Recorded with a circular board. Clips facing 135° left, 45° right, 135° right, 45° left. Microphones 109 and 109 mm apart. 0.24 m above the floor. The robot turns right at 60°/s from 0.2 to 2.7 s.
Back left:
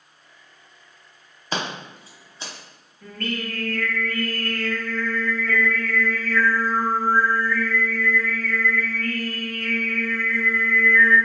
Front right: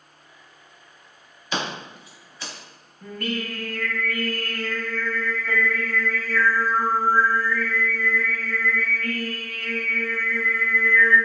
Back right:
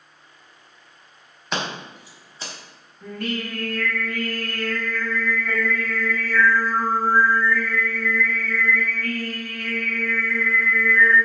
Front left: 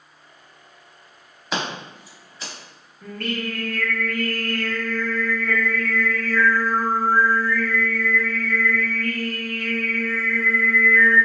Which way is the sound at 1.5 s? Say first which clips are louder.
Even, front left 1 dB; 130° left.